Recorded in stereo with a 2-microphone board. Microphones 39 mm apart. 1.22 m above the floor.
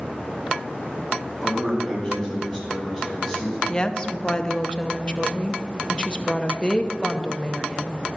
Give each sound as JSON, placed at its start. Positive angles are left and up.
{"t": 1.4, "sound": "a man speaking", "side_deg": -5, "distance_m": 5.0}
{"t": 3.7, "sound": "a woman speaking", "side_deg": 25, "distance_m": 0.7}